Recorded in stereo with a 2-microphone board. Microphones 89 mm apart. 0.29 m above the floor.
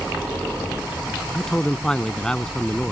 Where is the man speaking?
10° left (ahead or behind).